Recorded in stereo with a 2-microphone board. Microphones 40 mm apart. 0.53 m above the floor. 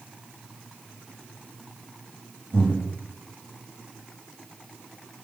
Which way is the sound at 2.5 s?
65° right (ahead or behind).